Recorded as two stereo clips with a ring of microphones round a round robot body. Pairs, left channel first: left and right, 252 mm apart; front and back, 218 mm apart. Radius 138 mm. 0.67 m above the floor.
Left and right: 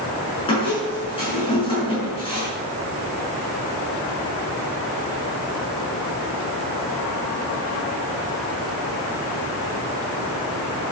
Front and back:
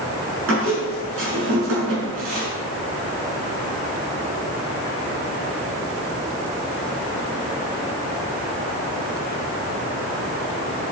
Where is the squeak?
160° left, 6 m.